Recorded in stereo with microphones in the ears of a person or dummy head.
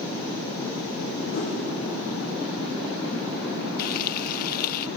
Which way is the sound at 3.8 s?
45° left (ahead or behind).